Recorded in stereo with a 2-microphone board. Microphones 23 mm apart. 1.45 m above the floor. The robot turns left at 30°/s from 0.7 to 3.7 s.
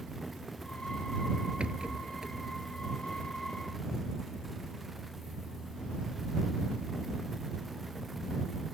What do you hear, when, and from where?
1.6 s a rattle: 55° right (ahead or behind); by 2.4 s 30° right (ahead or behind)